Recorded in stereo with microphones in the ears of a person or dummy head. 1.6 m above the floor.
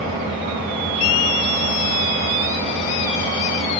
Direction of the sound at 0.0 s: 40° right (ahead or behind).